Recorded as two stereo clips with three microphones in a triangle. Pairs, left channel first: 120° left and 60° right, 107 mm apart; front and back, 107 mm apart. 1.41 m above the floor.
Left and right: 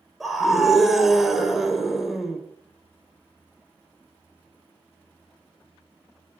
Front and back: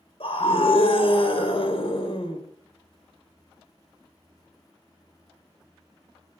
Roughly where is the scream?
Ahead left.